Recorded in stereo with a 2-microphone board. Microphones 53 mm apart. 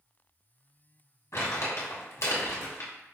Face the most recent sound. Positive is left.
turn(degrees=65)  # may be behind; listen again after turning